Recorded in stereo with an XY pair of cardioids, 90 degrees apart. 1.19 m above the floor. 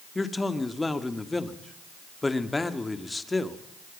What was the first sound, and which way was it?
A man speaking, 20° left.